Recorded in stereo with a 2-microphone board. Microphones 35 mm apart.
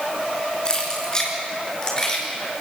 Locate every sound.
0.7 s keys jangling: 25° left (ahead or behind), 5 m; by 2.2 s 15° left (ahead or behind), 6.5 m